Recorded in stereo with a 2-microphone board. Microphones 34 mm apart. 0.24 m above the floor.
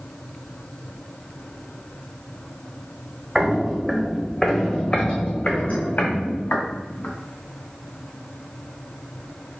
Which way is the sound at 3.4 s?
25° right (ahead or behind).